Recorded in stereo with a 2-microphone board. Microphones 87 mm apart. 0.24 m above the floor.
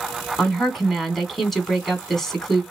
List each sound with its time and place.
0.4 s a woman speaking: 5° left (ahead or behind), 2 m